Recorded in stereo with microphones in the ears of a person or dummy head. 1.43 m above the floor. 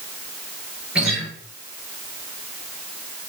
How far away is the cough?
I don't hear a cough.